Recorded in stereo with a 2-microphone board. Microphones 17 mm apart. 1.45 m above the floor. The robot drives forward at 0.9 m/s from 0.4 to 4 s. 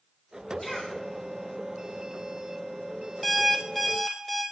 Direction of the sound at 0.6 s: 35° left (ahead or behind).